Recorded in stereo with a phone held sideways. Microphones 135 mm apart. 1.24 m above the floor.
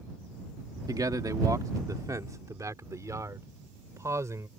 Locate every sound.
0.9 s a man speaking: 30° right (ahead or behind); by 4.5 s 20° right (ahead or behind)